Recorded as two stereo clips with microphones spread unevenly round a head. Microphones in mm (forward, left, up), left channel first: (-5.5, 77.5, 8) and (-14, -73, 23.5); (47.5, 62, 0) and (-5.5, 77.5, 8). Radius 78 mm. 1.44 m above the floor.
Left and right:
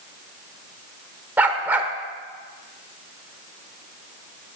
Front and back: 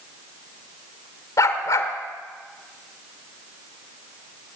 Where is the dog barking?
20° right, 1.5 m.